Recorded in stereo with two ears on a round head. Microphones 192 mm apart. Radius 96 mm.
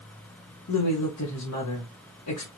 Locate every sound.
0.7 s a woman speaking: 85° left, 1.4 m